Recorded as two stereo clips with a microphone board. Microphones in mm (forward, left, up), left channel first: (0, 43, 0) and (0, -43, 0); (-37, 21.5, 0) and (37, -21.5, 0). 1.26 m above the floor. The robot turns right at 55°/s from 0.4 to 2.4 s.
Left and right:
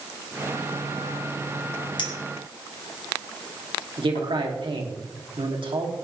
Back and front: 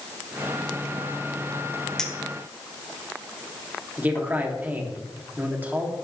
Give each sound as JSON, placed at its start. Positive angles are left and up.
{"t": 2.0, "sound": "a clink", "azimuth_deg": 65, "distance_m": 2.5}
{"t": 4.0, "sound": "a man speaking", "azimuth_deg": -100, "distance_m": 3.0}